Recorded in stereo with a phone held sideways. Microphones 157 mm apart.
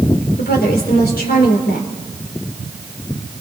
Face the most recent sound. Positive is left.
turn(degrees=80)